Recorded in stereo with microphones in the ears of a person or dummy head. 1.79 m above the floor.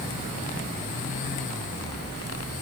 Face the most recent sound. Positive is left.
No sound to turn to.